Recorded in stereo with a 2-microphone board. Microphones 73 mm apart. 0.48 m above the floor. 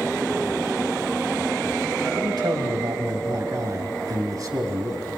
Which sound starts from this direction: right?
A man speaking, at 2.2 s.